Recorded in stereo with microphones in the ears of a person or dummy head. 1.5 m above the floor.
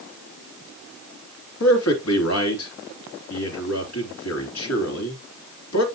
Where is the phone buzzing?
I don't hear a phone buzzing.